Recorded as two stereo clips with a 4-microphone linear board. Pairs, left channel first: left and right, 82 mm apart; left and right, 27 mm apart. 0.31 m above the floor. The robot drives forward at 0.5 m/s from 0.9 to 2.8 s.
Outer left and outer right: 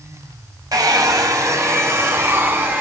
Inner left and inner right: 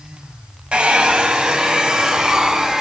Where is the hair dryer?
50° right (ahead or behind), 0.9 m; by 2.8 s 25° right (ahead or behind), 1.6 m.